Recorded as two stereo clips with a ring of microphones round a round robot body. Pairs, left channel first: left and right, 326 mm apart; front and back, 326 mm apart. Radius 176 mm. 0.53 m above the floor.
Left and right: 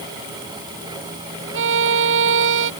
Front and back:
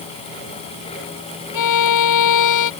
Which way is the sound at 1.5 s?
30° right.